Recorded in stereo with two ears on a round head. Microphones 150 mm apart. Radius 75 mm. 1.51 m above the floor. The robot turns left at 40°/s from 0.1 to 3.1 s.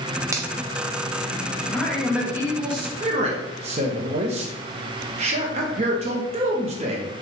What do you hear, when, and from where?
0.3 s a finger snap: 20° right (ahead or behind), 0.5 m
1.7 s a man speaking: 10° left, 0.8 m; by 7.1 s 45° right, 0.8 m